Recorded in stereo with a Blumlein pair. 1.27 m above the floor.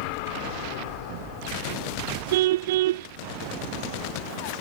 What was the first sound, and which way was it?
A car horn, 55° right.